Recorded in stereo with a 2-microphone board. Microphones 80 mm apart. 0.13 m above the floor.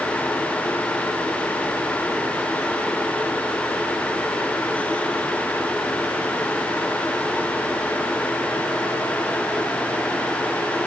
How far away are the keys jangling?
No keys jangling in this recording.